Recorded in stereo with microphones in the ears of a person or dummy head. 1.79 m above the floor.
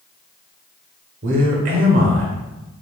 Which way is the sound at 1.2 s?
50° right (ahead or behind).